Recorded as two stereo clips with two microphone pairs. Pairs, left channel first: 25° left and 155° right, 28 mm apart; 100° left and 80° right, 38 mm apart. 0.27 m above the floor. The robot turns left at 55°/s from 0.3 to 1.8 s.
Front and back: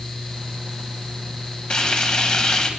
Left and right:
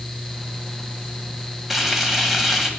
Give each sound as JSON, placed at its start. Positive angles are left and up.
{"t": 1.7, "sound": "frying", "azimuth_deg": 5, "distance_m": 1.4}